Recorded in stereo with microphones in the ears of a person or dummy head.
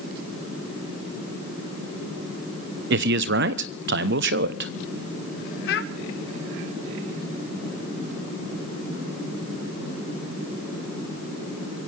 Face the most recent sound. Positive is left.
turn(degrees=60)  # may be behind; listen again after turning